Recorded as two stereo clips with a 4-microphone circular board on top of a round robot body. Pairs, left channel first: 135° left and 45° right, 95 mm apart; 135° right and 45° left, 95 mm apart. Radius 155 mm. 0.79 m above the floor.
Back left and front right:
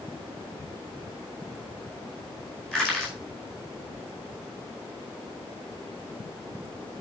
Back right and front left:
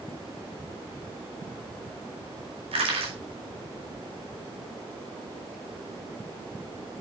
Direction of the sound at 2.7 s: 50° left.